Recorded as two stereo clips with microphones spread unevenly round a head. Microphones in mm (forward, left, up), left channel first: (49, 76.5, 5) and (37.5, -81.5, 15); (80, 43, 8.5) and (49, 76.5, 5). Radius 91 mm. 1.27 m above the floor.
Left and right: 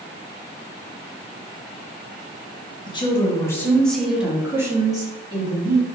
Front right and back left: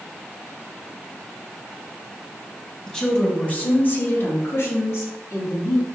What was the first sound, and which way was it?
A woman speaking, 25° left.